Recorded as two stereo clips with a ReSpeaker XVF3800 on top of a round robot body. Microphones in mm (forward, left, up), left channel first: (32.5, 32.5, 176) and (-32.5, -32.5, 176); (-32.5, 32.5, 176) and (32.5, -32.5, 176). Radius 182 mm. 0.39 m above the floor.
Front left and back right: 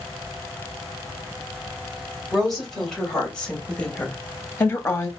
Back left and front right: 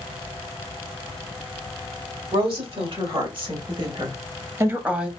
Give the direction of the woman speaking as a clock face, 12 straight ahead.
1 o'clock.